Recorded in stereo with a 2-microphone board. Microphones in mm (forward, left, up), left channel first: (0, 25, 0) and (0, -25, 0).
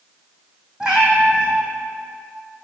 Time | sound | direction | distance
0.8 | a cat meowing | 10° right (ahead or behind) | 1.3 m